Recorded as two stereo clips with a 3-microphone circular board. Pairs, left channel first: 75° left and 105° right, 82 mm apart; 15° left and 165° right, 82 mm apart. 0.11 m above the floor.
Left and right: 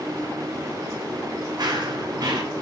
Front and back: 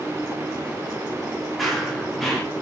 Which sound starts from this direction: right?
Running footsteps, at 1.6 s.